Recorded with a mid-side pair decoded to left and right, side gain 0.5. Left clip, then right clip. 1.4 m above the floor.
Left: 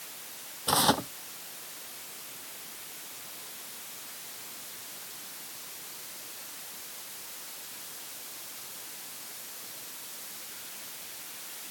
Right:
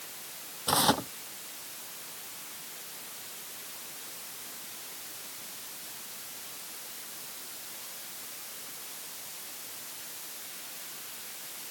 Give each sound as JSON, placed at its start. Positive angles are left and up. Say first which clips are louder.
{"t": 0.7, "sound": "tearing paper", "louder": "left 1 dB", "azimuth_deg": 10}